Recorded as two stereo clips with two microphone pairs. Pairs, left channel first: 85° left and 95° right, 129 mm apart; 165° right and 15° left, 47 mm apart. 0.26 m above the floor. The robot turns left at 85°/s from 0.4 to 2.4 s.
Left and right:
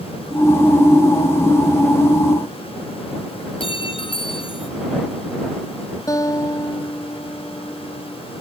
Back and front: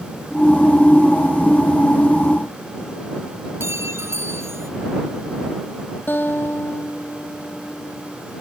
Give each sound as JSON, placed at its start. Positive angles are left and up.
{"t": 3.6, "sound": "a clink", "azimuth_deg": 40}
{"t": 6.1, "sound": "a guitar", "azimuth_deg": 150}